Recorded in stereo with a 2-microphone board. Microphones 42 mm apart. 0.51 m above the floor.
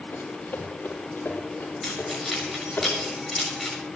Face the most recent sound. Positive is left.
turn(degrees=5)  # may be behind; listen again after turning